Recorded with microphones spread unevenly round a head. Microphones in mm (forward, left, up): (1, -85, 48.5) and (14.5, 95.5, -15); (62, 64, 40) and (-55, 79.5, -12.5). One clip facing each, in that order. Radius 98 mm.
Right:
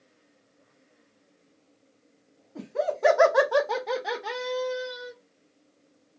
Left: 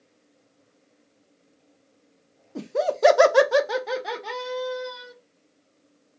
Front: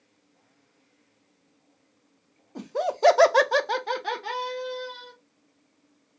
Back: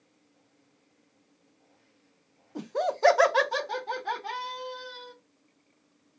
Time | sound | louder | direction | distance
2.5 | laughter | left 4 dB, front 2 dB | 90° left | 0.7 m